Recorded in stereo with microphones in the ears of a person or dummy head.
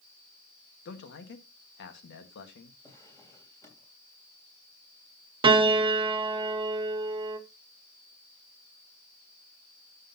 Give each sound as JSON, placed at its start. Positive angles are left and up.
{"t": 0.8, "sound": "a man speaking", "side_deg": 55, "distance_m": 1.6}
{"t": 2.8, "sound": "a drawer", "side_deg": 20, "distance_m": 3.0}
{"t": 5.4, "sound": "a piano", "side_deg": -25, "distance_m": 0.6}